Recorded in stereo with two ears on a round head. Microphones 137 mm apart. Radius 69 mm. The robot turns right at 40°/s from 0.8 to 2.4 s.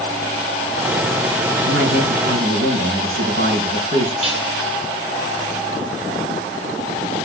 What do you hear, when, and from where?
1.6 s a man speaking: 100° right, 4.5 m; by 4.1 s 70° right, 4.5 m
4.2 s dishes clattering: 40° right (ahead or behind), 10 m